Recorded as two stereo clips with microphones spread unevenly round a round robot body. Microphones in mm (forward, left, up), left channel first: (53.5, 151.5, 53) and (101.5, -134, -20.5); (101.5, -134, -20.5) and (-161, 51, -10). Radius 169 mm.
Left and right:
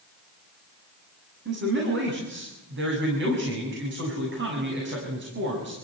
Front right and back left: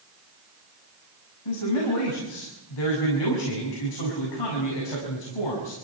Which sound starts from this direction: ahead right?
A man speaking, at 1.4 s.